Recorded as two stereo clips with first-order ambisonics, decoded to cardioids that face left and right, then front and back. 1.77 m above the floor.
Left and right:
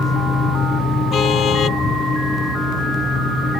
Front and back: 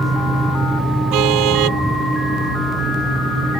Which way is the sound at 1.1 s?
150° left.